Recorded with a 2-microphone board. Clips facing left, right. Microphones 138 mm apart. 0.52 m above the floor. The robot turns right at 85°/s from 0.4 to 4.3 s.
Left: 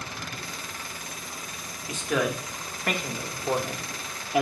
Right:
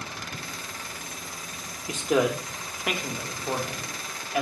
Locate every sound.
1.9 s a man speaking: 20° right (ahead or behind), 0.7 m; by 4.4 s 20° left (ahead or behind), 0.7 m